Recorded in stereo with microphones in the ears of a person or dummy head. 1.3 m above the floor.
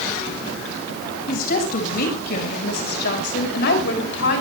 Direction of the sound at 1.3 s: 55° left (ahead or behind).